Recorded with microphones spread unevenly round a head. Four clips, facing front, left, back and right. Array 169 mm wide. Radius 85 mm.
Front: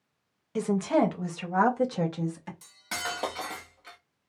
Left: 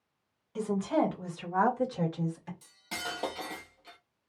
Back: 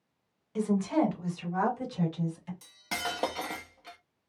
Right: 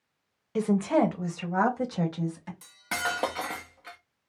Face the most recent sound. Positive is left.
turn(degrees=-105)